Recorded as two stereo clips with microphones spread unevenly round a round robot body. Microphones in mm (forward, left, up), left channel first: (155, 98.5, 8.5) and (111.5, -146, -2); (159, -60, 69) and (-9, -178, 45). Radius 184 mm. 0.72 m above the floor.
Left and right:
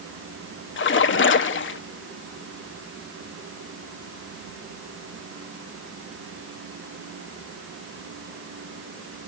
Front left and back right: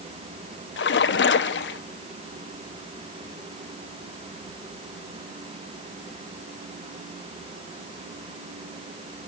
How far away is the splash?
About 1.0 m.